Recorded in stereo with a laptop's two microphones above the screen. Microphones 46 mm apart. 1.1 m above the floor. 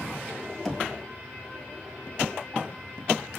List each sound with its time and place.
0.7 s knocking: 5° left (ahead or behind), 1.3 m